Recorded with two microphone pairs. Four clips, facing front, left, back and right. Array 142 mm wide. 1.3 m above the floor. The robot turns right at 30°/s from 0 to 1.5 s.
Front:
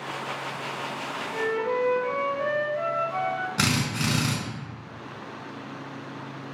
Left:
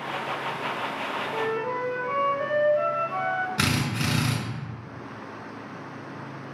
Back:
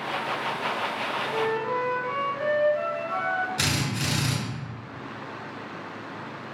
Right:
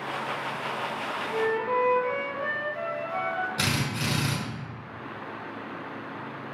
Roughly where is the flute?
Behind left.